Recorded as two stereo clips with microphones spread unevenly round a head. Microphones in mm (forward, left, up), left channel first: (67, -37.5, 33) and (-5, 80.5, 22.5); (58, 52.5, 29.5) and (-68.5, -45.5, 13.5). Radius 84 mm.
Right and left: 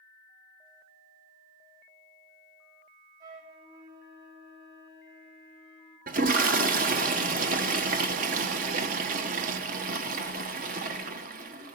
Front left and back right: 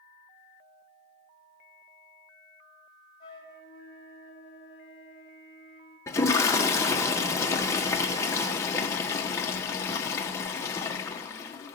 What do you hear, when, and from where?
3.2 s a flute: 100° left, 7.5 m
6.1 s a toilet flushing: 105° left, 1.0 m